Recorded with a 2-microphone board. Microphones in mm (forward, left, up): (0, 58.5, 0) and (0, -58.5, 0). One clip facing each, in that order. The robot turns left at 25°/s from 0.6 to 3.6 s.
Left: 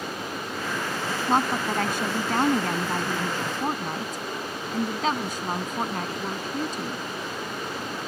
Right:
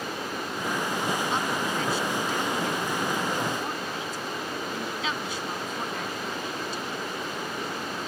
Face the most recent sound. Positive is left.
turn(degrees=55)